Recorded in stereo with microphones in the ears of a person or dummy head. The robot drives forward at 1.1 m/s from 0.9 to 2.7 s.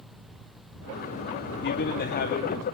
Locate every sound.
1.6 s a man speaking: 60° left (ahead or behind), 2 m; by 2.6 s 40° left (ahead or behind), 3 m